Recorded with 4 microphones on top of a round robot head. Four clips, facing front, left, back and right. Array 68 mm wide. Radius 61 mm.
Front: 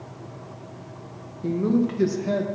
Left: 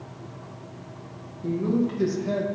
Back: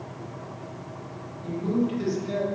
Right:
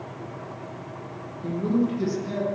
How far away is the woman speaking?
About 1.9 m.